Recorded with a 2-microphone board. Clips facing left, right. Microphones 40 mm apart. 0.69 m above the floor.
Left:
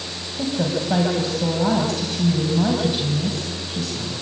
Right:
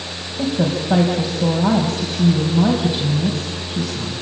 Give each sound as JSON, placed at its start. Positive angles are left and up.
{"t": 0.4, "sound": "a woman speaking", "side_deg": -10, "distance_m": 4.0}